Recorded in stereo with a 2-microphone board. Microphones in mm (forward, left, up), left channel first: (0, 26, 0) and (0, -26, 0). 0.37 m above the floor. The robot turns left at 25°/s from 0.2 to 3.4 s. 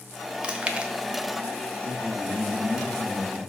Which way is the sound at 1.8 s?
35° right.